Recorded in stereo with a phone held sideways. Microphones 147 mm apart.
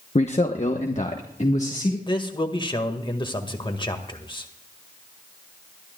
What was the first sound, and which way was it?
A man speaking, 50° left (ahead or behind).